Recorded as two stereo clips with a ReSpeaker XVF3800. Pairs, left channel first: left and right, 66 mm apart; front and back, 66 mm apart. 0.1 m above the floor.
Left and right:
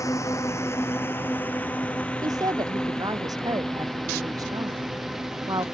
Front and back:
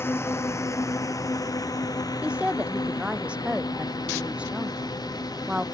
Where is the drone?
50° left; by 5.8 s 10° right.